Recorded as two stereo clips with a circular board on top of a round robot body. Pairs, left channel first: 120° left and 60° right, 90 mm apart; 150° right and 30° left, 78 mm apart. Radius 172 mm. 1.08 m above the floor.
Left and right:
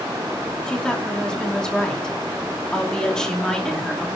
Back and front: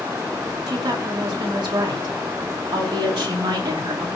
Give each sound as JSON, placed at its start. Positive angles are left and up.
{"t": 0.7, "sound": "a woman speaking", "azimuth_deg": 40, "distance_m": 2.5}